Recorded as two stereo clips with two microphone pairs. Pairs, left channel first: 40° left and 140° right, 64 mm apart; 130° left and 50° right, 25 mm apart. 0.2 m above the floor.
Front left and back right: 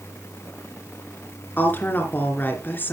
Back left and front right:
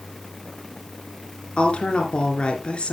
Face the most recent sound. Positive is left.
turn(degrees=90)